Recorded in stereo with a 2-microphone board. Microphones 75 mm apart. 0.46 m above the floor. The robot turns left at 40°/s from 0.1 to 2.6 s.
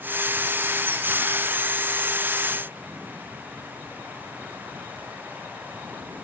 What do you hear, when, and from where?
Only background noise.